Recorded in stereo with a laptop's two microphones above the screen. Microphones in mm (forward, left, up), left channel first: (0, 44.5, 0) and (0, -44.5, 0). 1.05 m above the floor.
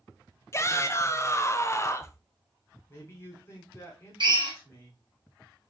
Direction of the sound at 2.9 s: 30° left (ahead or behind).